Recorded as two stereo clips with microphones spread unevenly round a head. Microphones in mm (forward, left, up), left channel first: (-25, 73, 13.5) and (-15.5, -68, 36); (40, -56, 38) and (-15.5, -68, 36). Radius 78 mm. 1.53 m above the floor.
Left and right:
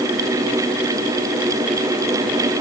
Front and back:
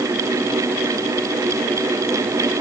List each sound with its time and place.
Only background noise.